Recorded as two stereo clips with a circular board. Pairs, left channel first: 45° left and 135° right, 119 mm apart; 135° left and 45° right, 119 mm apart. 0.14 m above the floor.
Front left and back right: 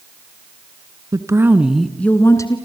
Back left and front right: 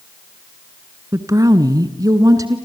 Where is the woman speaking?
95° right, 1.7 m; by 2.6 s 5° left, 1.8 m.